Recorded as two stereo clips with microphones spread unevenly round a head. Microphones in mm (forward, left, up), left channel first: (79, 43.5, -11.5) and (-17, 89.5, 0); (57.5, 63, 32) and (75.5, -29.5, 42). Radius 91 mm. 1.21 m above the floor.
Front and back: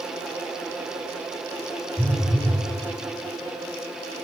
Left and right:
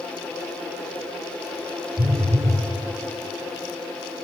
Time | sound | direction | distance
2.0 | a phone buzzing | 100° right | 2.5 m